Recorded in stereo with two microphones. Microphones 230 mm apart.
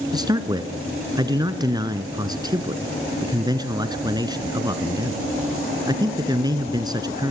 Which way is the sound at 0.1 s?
15° right (ahead or behind).